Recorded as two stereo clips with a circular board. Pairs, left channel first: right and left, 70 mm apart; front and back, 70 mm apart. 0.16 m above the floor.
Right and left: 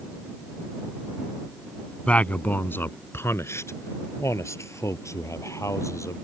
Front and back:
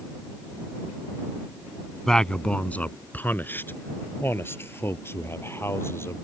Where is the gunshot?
I don't hear a gunshot.